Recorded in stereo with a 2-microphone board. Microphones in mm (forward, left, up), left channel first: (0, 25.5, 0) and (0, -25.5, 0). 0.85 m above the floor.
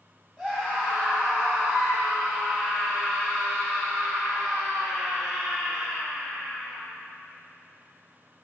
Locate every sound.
0.4 s a scream: 5° left (ahead or behind), 6.5 m; by 6.8 s centre (ahead or behind), 15.5 m